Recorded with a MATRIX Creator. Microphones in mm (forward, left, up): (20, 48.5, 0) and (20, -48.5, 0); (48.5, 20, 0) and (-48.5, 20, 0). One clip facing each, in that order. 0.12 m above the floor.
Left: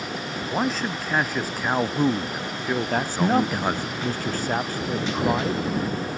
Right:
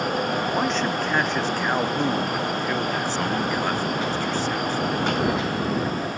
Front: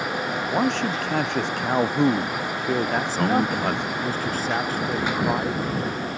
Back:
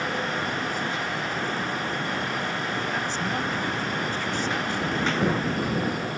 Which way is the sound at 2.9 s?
50° left.